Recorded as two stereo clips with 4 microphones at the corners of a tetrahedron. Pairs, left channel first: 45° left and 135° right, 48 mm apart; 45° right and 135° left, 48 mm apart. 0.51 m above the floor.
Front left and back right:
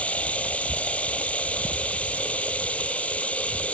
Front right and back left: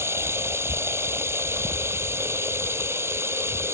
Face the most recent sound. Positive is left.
turn(degrees=105)